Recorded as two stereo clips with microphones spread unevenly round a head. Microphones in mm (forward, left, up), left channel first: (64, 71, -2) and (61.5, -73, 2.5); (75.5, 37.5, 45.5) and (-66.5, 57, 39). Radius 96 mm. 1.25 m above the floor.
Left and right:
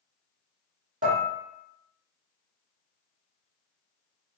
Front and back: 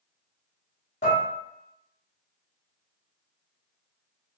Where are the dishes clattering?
60° right, 1.3 m.